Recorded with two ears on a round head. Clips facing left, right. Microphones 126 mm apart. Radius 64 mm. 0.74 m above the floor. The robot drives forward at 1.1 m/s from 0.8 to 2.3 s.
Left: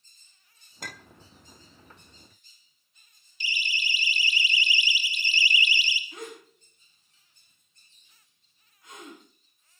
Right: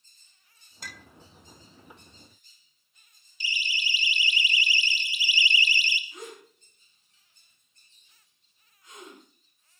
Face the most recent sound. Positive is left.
turn(degrees=55)  # may be behind; listen again after turning